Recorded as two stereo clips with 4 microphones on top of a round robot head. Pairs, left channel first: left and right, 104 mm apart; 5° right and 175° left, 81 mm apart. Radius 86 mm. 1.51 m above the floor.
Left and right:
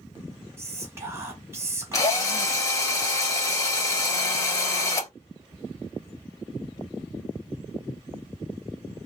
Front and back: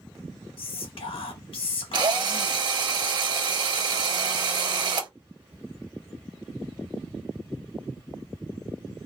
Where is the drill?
145° left, 1.2 m.